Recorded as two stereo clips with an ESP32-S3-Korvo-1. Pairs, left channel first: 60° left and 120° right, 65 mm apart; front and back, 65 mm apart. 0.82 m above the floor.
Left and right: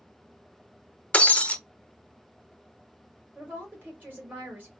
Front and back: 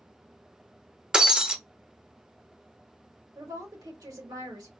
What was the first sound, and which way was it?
Breaking glass, 115° left.